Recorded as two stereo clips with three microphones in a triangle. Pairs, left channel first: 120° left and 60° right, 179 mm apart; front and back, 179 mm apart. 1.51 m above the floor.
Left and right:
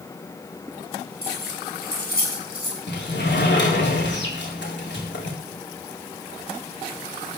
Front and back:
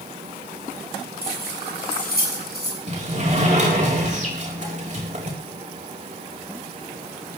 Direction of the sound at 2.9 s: 130° left.